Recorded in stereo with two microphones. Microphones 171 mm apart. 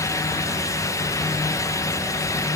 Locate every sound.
Only background noise.